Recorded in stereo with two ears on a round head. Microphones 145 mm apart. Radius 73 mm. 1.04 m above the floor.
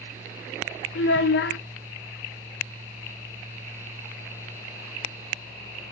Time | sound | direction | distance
0.9 | a child speaking | 75° left (ahead or behind) | 0.6 m